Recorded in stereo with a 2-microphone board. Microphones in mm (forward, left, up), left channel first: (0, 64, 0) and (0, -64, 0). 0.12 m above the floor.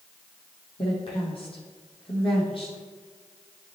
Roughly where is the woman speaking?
Left.